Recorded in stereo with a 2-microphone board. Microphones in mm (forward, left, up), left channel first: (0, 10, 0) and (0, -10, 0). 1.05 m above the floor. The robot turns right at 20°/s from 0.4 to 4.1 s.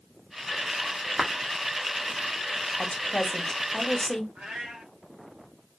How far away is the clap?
About 1.3 m.